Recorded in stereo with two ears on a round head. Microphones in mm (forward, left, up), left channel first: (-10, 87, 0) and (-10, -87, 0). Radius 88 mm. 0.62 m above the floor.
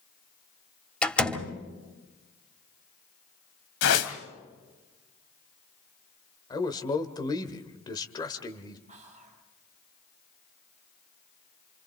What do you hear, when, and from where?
1.0 s a door slam: 5° left (ahead or behind), 2.5 m
3.8 s a whoosh: 70° left (ahead or behind), 2.5 m
6.5 s a man speaking: 20° left (ahead or behind), 2 m
8.9 s whispering: 40° right (ahead or behind), 4 m